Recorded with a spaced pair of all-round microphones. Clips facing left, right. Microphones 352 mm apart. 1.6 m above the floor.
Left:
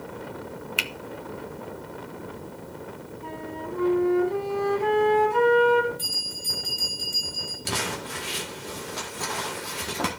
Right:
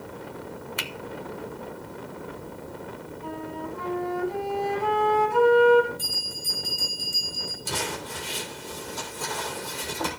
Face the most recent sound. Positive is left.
turn(degrees=75)  # may be behind; listen again after turning